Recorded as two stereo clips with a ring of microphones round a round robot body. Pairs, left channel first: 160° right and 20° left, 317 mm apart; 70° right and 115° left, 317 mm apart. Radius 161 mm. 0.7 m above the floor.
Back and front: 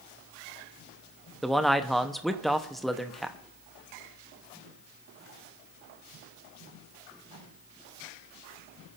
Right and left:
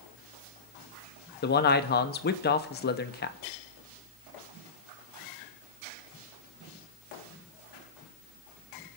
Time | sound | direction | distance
1.4 | a man speaking | 70° right | 0.9 m